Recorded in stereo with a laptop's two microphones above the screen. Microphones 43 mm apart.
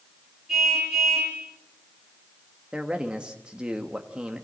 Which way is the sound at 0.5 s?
10° right (ahead or behind).